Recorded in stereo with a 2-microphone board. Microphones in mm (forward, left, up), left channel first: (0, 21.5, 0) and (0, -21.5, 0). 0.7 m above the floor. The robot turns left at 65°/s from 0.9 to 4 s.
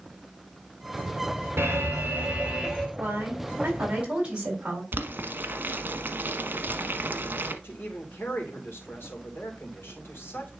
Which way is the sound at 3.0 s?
85° right.